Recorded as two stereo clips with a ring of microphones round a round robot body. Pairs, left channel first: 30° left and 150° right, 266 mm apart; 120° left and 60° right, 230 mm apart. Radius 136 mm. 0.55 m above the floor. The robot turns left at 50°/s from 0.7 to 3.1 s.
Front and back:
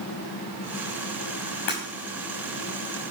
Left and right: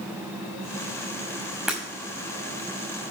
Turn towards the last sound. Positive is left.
turn(degrees=-45)